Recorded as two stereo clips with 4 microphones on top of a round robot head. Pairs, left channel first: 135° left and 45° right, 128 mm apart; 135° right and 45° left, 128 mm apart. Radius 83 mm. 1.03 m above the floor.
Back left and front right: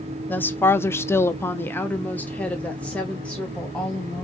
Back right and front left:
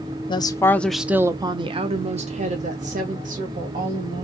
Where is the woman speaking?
155° right, 0.7 m; by 4.2 s 50° left, 2 m.